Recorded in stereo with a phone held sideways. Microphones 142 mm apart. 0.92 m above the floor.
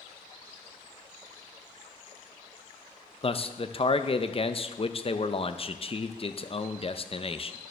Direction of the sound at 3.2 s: 40° left (ahead or behind).